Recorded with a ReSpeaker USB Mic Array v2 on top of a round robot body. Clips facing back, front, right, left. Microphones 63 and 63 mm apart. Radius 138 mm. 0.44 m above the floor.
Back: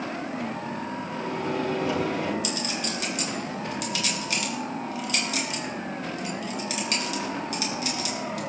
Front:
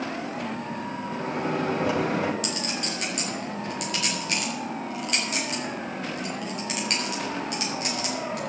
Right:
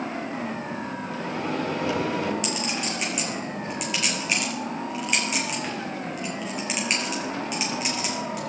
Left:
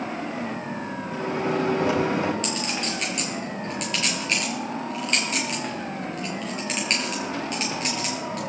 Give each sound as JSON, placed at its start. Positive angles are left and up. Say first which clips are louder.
{"t": 1.1, "sound": "a microwave", "louder": "front 2 dB, left 5 dB", "azimuth_deg": 30, "distance_m": 4.0}
{"t": 2.4, "sound": "a clink", "louder": "even, even", "azimuth_deg": -10, "distance_m": 6.0}